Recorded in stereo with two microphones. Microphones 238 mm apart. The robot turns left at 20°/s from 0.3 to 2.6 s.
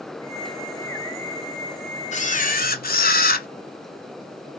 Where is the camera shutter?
30° left (ahead or behind), 0.6 m; by 3.5 s 40° left (ahead or behind), 0.6 m.